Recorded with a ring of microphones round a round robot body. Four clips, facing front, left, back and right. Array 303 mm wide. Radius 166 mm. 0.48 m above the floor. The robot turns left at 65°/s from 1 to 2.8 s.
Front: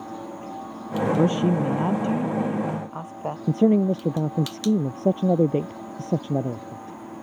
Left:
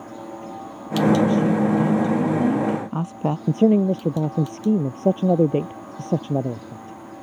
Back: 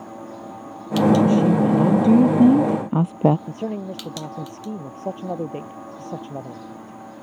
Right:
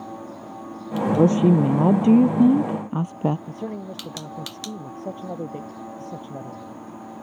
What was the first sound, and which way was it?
A woman speaking, 65° right.